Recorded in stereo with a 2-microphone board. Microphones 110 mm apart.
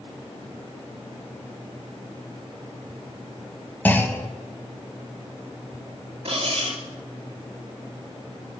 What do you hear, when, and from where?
3.9 s a clunk: 20° left (ahead or behind), 1.2 m
6.2 s cutlery clinking: 65° right (ahead or behind), 2.5 m